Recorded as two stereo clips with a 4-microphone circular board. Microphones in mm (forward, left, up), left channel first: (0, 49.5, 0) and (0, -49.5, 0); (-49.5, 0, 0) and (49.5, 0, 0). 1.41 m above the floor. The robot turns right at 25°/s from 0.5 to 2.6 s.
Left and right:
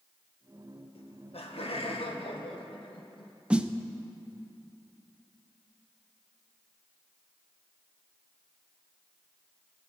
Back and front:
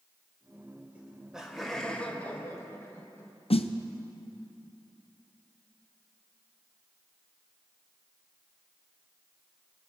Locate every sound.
0.9 s laughter: 75° left, 1.3 m; by 3.3 s 115° left, 1.3 m
3.5 s a snare drum: 170° right, 0.6 m